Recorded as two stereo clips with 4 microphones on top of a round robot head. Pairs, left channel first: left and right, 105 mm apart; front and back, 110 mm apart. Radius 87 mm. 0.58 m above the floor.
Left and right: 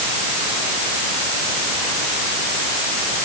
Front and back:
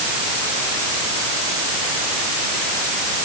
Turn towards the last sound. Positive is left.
No sound to turn to.